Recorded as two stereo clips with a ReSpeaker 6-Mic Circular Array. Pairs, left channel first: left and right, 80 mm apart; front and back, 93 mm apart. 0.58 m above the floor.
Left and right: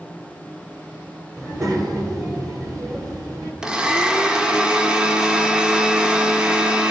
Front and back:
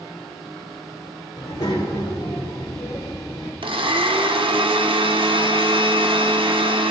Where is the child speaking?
45° right, 1.4 m.